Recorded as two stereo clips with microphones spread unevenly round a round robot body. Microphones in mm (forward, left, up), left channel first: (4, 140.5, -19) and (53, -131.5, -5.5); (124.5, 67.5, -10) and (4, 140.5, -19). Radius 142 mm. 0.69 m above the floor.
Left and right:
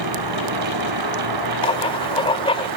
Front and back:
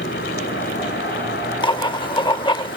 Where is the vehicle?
80° right; by 2.8 s 75° right.